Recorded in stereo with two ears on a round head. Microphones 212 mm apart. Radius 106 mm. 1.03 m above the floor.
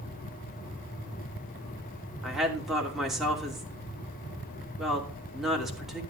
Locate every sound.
2.2 s a woman speaking: centre (ahead or behind), 2.5 m